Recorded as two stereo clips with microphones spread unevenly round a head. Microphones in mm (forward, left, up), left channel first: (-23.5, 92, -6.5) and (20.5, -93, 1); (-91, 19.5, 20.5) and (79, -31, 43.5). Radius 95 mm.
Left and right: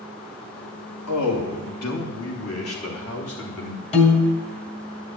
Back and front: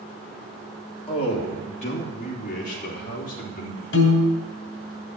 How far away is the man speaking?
About 2.5 m.